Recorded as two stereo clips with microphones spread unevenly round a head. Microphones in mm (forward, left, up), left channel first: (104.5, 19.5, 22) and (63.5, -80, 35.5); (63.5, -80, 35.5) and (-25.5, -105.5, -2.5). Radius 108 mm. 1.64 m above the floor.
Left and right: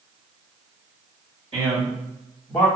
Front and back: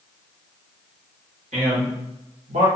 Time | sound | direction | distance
1.5 | a man speaking | 175° right | 1.3 m